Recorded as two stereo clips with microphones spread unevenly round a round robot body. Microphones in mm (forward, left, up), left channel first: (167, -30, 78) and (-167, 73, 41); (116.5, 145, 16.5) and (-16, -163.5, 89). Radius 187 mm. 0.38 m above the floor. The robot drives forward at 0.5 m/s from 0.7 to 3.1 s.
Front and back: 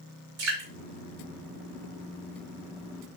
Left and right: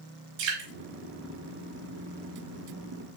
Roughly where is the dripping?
Behind right.